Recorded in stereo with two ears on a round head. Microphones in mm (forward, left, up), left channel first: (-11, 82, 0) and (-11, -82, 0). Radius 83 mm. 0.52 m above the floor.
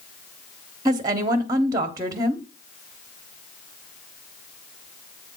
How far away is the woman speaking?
About 0.9 m.